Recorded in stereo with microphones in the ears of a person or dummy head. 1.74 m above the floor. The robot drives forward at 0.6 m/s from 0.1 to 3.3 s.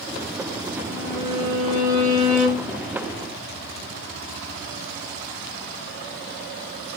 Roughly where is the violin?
Right.